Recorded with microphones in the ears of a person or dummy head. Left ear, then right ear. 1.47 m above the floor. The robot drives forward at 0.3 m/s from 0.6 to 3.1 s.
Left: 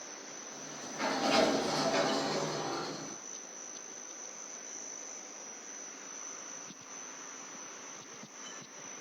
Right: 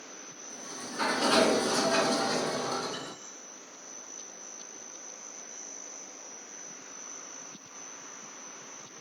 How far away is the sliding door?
About 2.5 m.